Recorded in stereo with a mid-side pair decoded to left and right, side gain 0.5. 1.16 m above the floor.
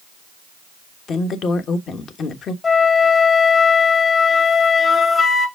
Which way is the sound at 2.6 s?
35° left.